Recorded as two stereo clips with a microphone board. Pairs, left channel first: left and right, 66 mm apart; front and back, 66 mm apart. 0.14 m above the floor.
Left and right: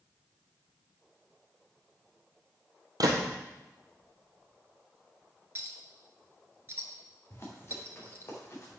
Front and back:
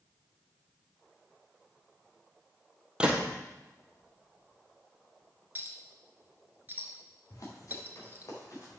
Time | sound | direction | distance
3.0 | a gunshot | 100° right | 1.6 m
5.5 | a clink | 130° right | 1.4 m
7.3 | running footsteps | 35° left | 3.5 m